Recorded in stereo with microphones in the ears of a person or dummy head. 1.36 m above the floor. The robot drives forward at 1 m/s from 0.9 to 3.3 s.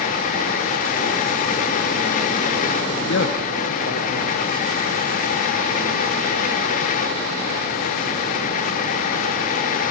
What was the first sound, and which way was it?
A man speaking, 65° left (ahead or behind).